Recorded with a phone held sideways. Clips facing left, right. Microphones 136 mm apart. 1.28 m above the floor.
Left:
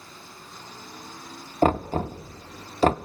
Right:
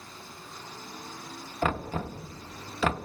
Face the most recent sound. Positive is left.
turn(degrees=40)  # may be behind; listen again after turning